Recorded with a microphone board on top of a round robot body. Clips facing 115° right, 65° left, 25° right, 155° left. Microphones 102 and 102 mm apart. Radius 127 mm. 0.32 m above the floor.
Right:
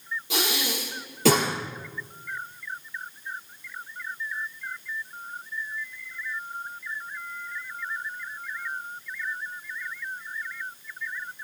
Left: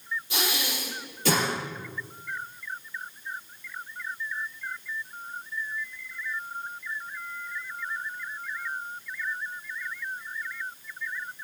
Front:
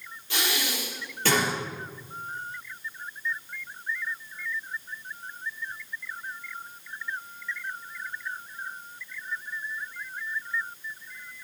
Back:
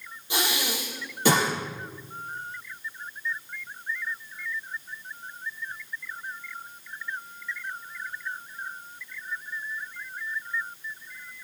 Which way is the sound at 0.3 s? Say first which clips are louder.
Right 3 dB, back 2 dB; 130° right.